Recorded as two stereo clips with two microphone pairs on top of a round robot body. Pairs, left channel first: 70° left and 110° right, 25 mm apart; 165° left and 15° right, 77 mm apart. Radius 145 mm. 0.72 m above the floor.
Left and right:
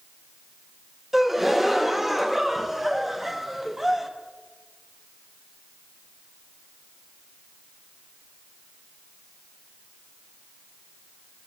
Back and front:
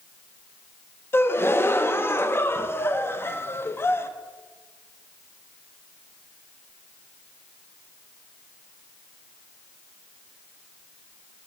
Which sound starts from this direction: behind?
A gasp, at 1.1 s.